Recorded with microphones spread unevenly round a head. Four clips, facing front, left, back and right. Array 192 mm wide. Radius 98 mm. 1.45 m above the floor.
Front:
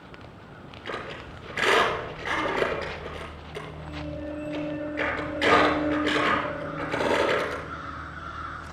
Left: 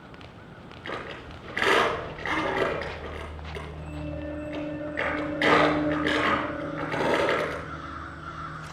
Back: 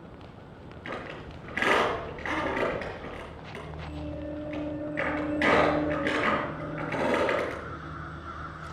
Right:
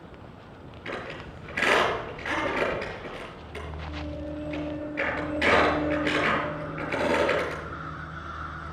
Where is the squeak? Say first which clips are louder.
Even, front 2 dB; 135° left, 6 m.